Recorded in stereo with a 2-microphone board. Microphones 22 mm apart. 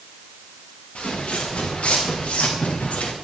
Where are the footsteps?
75° left (ahead or behind), 5 m.